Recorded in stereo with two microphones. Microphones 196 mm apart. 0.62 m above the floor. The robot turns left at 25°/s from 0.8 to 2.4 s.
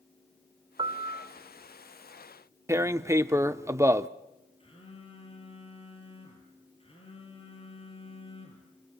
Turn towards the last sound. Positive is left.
turn(degrees=30)  # may be behind; listen again after turning